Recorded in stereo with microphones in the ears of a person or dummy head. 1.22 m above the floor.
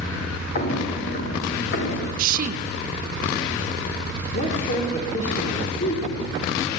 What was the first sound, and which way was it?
Footsteps, 40° left (ahead or behind).